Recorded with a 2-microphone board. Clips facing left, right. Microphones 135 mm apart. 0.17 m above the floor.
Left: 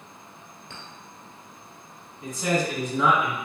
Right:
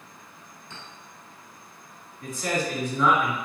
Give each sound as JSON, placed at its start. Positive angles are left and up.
{"t": 0.7, "sound": "a clink", "side_deg": 65, "distance_m": 1.7}
{"t": 2.2, "sound": "a man speaking", "side_deg": 20, "distance_m": 1.4}